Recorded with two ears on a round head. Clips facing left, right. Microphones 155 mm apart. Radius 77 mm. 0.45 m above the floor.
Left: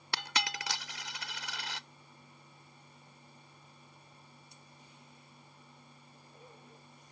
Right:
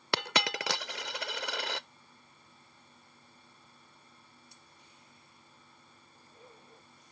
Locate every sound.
0.1 s a dropped coin: 50° right (ahead or behind)